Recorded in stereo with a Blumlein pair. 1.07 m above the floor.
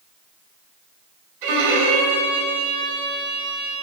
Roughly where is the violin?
Ahead right.